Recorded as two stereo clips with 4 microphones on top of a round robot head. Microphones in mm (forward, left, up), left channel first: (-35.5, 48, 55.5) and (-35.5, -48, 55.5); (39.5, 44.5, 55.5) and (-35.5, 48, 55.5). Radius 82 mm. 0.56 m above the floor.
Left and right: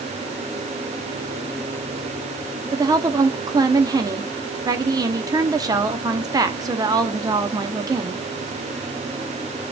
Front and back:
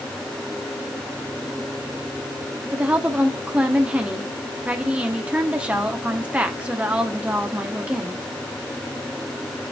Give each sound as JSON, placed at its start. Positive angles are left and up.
{"t": 2.7, "sound": "a woman speaking", "azimuth_deg": -115, "distance_m": 1.0}